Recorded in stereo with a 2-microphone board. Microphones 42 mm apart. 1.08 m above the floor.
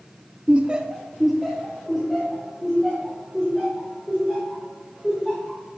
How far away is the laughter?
About 0.5 m.